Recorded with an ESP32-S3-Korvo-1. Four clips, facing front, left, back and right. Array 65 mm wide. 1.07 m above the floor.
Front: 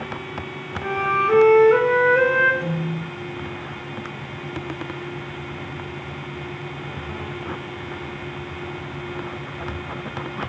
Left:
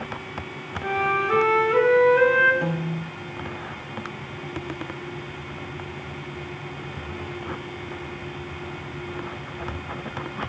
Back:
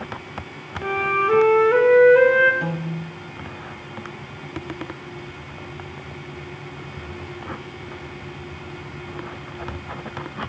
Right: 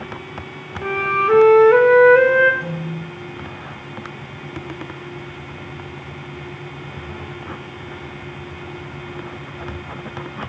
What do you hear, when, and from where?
0.8 s a flute: 100° right, 3.5 m
2.6 s a piano: 135° left, 1.7 m